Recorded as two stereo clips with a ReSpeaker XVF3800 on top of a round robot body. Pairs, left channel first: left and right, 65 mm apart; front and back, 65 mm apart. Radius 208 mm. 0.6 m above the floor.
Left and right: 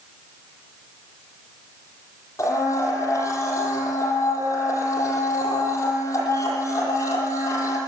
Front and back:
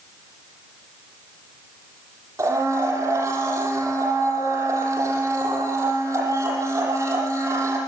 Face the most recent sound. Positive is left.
turn(degrees=140)